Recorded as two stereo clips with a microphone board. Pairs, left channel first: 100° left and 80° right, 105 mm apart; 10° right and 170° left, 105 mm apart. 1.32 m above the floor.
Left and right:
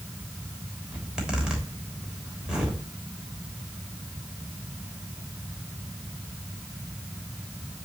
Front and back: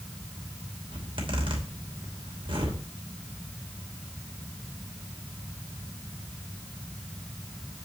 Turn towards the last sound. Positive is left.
turn(degrees=-160)